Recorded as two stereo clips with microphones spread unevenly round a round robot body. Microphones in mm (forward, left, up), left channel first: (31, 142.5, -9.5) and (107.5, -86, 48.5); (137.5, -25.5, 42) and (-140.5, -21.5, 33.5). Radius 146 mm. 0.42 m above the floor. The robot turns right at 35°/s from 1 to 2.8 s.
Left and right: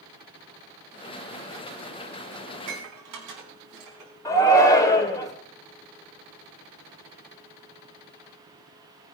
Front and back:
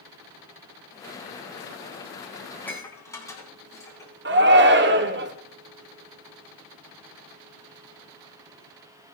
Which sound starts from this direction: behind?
A shout, at 4.2 s.